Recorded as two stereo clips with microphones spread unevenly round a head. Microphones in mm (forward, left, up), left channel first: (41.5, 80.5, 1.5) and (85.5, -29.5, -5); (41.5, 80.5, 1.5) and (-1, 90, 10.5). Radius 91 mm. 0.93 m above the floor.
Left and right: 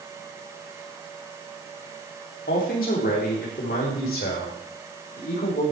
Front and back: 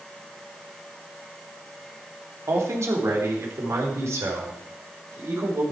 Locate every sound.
2.5 s a man speaking: 145° left, 3 m; by 5.6 s 150° left, 5.5 m